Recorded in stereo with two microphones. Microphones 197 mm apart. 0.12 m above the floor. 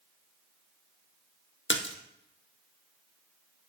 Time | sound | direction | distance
1.7 | a splash | 75° left (ahead or behind) | 1.2 m